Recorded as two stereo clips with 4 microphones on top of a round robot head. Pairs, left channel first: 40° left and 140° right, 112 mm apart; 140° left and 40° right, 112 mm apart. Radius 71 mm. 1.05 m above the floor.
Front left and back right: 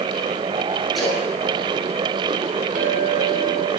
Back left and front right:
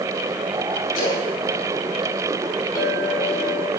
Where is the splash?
130° left, 7 m.